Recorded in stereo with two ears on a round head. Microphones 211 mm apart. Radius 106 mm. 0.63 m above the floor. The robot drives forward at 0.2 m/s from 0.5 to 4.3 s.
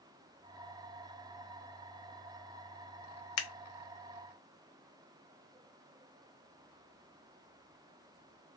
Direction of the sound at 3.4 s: 80° left.